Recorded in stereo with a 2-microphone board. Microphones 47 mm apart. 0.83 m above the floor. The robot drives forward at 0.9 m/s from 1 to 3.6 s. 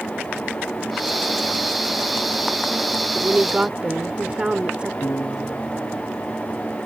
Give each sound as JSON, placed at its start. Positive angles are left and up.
{"t": 3.1, "sound": "a woman speaking", "side_deg": -25}
{"t": 5.0, "sound": "a piano", "side_deg": 80}